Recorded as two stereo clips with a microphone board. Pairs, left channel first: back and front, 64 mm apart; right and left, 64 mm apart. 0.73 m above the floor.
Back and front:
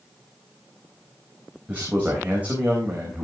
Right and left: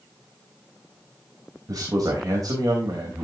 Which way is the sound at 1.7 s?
65° left.